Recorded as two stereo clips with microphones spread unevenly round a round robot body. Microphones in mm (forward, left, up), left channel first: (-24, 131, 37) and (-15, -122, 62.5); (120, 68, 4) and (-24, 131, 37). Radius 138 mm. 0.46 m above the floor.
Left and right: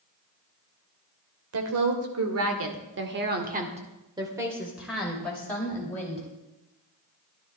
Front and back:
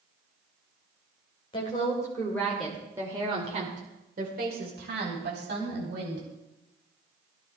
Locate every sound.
1.5 s a woman speaking: 75° right, 2.5 m; by 6.3 s 165° left, 3.5 m